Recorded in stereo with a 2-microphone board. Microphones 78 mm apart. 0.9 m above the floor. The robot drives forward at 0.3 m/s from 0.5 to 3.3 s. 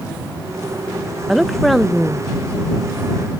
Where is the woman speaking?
Centre (ahead or behind), 0.6 m.